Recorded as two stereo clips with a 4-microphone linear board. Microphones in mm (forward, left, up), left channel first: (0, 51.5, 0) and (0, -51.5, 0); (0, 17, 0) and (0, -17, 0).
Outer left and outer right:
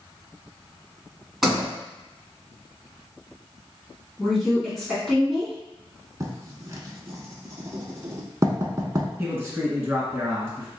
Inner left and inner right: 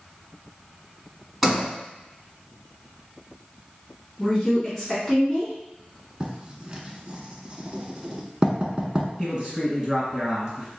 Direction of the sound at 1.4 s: 5° right (ahead or behind).